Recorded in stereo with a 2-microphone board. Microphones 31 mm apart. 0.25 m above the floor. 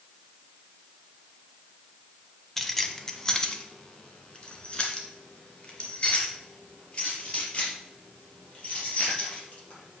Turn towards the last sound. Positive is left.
turn(degrees=40)  # may be behind; listen again after turning